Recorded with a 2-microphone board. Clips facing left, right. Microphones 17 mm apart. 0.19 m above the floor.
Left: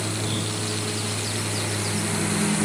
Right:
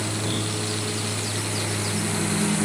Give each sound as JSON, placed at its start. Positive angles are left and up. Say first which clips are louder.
{"t": 0.0, "sound": "a lawn mower", "louder": "even", "side_deg": -5}